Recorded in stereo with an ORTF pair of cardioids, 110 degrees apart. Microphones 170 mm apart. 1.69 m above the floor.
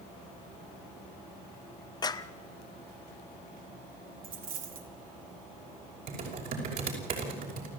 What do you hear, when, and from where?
2.0 s a clap: 25° left, 1.3 m
4.2 s a dropped coin: 60° right, 3.5 m
6.1 s typing on a keyboard: 55° right, 6 m